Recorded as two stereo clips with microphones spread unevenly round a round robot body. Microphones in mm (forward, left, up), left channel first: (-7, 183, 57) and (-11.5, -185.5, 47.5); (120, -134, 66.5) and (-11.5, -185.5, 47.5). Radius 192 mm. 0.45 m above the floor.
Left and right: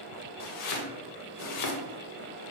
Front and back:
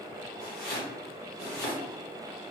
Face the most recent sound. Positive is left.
turn(degrees=45)